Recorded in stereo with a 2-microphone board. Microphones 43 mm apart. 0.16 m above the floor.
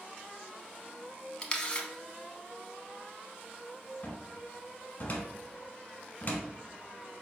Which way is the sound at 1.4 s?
20° left (ahead or behind).